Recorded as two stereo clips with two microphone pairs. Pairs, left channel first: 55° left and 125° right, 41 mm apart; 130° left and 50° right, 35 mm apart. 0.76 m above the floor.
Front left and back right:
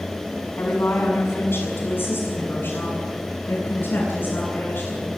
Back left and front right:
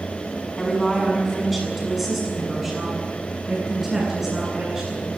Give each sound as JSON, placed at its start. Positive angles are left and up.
{"t": 0.6, "sound": "a woman speaking", "azimuth_deg": 45, "distance_m": 7.0}